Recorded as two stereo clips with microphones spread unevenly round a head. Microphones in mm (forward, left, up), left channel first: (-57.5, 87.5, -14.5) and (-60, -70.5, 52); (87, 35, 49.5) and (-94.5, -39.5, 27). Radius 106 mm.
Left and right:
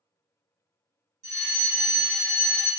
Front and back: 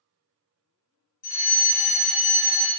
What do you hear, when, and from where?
1.2 s a fire alarm: 25° right, 2.5 m